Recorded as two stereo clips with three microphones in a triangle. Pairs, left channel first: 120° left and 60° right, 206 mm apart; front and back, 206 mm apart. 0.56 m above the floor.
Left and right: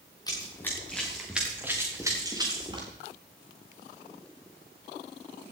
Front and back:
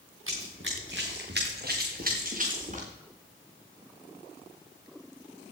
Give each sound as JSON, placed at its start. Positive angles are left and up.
{"t": 0.3, "sound": "running footsteps", "azimuth_deg": -170, "distance_m": 2.5}